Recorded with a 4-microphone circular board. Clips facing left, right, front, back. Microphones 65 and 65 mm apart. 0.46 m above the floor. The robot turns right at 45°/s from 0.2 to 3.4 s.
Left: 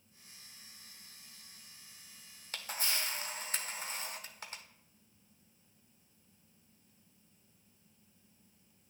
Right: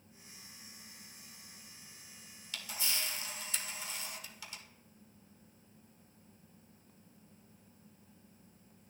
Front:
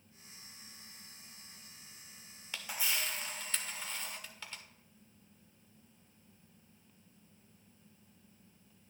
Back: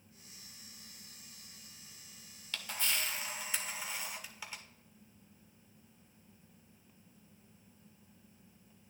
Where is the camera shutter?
70° left, 1.1 m; by 4.6 s 110° left, 1.1 m.